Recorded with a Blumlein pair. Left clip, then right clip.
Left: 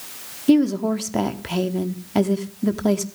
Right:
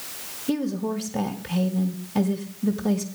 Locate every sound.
0.5 s a woman speaking: 65° left, 0.8 m